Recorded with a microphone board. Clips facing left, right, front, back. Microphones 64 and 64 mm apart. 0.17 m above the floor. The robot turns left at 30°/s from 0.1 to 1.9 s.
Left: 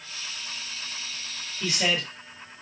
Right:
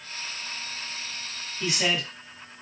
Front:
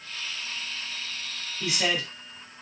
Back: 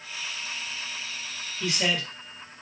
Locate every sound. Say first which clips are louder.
1.6 s a man speaking: even, even; 55° right, 1.6 m; by 2.1 s 65° right, 1.6 m